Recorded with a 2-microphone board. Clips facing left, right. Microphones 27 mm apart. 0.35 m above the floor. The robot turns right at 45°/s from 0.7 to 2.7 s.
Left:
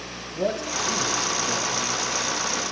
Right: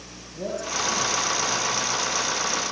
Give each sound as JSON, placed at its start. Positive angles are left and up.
{"t": 0.3, "sound": "a man speaking", "side_deg": 35, "distance_m": 7.0}